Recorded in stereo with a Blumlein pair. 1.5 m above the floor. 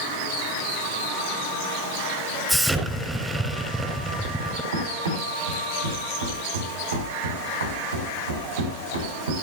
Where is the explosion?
5° right, 5.5 m.